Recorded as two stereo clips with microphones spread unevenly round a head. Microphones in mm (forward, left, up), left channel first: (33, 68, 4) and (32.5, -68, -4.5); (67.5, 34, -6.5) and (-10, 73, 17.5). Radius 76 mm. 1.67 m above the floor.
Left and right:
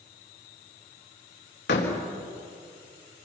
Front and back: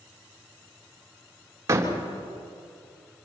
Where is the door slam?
105° left, 3.5 m.